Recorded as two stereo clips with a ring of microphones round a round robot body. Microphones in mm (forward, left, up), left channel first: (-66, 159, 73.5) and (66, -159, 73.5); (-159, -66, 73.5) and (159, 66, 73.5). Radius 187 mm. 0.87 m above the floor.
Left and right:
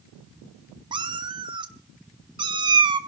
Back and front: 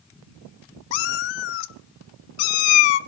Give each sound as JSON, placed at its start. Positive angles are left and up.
{"t": 0.9, "sound": "a cat meowing", "azimuth_deg": -145, "distance_m": 0.9}